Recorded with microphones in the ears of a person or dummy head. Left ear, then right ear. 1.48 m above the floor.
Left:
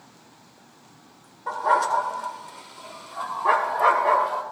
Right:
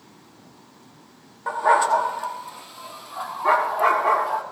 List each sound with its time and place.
1.5 s a dog barking: 45° right (ahead or behind), 1.2 m; by 4.4 s 10° right (ahead or behind), 2 m